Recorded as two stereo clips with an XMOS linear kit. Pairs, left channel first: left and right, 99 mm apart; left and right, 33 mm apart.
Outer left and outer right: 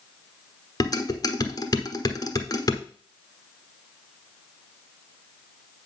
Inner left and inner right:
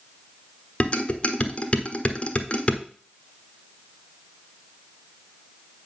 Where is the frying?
I don't hear frying.